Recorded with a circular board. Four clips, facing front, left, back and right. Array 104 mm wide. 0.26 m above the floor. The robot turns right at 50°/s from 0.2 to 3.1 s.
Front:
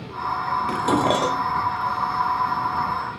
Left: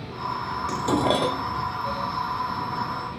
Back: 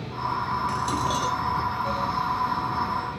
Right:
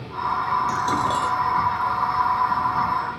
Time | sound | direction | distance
0.7 | dishes clattering | 15° left | ?